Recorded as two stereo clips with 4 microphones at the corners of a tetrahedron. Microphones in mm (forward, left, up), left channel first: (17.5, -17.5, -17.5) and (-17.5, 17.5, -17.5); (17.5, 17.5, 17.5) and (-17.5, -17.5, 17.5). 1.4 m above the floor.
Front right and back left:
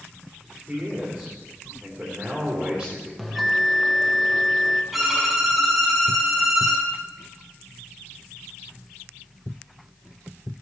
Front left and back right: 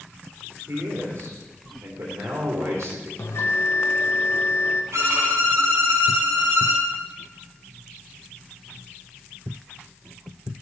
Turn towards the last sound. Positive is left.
turn(degrees=-140)